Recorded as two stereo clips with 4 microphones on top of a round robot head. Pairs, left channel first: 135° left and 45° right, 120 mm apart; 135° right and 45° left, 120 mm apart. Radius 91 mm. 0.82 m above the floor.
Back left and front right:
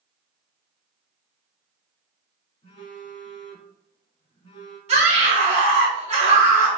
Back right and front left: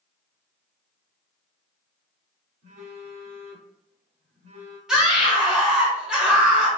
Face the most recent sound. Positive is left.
turn(degrees=-40)